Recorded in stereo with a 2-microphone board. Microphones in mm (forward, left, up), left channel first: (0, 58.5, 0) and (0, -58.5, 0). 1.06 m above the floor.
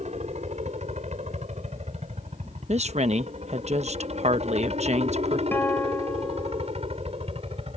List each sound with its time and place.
0.0 s a helicopter: 75° right (ahead or behind); by 7.8 s 60° right (ahead or behind)
2.7 s a woman speaking: 70° right (ahead or behind)
5.5 s a guitar: 20° left (ahead or behind)